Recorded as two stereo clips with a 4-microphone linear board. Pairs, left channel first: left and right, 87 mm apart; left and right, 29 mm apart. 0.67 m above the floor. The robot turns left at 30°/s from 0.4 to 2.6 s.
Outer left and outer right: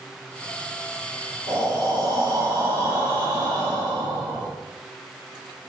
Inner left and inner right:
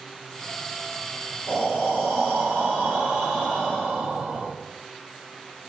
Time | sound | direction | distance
1.5 | breathing | 100° right | 2.0 m